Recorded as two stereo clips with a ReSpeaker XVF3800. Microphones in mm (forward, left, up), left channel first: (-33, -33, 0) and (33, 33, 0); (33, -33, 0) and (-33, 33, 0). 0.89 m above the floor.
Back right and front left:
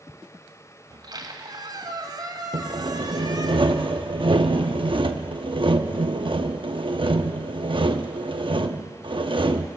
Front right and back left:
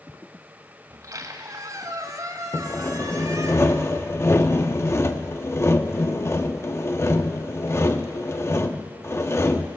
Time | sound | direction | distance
0.9 | a squeak | 85° left | 1.9 m
2.5 | sawing | 15° left | 0.8 m